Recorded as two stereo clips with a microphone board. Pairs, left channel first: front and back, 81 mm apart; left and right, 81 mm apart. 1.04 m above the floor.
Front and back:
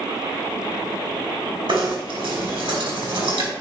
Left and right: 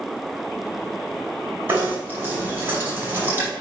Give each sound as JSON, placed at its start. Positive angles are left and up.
{"t": 1.7, "sound": "knocking", "azimuth_deg": -155, "distance_m": 4.5}